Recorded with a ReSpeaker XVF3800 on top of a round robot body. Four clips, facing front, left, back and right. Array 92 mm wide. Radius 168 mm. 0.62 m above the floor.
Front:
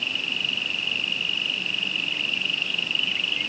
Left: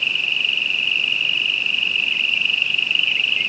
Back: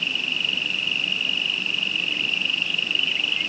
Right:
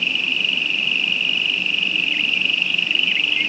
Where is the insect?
100° right.